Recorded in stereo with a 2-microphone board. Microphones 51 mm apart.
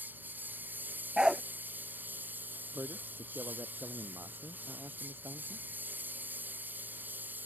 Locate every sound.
0.0 s a lawn mower: 35° right (ahead or behind)
1.2 s a dog barking: 15° right (ahead or behind)
2.7 s a man speaking: 55° right (ahead or behind)